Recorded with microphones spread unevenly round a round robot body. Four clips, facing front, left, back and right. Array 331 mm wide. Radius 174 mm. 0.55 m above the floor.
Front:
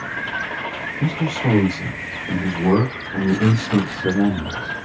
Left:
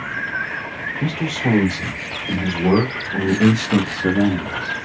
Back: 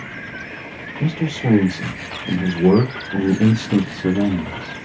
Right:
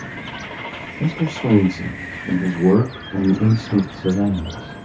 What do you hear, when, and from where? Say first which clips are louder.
1.0 s a man speaking: right 1 dB, even; 120° right, 1.9 m; by 4.8 s 145° left, 1.4 m